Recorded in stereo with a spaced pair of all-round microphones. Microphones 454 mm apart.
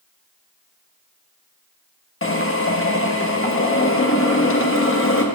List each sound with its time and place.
2.2 s a drill: 25° left (ahead or behind), 1.1 m